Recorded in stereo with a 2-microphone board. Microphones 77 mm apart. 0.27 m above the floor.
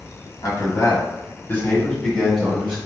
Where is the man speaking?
50° left (ahead or behind), 1.7 m; by 2.8 s 10° right (ahead or behind), 1.1 m.